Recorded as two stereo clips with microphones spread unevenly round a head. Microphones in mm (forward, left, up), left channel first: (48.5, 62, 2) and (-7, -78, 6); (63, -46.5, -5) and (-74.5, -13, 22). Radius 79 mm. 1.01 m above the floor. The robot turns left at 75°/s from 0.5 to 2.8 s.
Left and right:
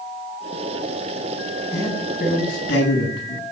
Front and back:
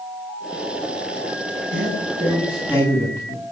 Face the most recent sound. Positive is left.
turn(degrees=60)